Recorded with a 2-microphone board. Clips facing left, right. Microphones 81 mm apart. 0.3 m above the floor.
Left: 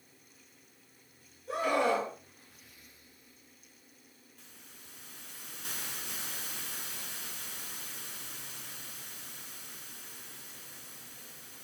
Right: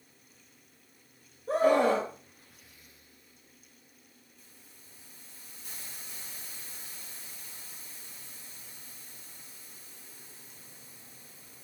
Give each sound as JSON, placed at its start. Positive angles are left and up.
{"t": 1.5, "sound": "a scream", "side_deg": -35, "distance_m": 5.5}
{"t": 4.4, "sound": "a hiss", "side_deg": 80, "distance_m": 1.4}